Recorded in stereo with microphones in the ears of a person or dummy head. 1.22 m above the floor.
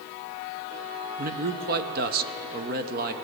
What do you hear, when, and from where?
1.2 s a man speaking: 45° right (ahead or behind), 0.6 m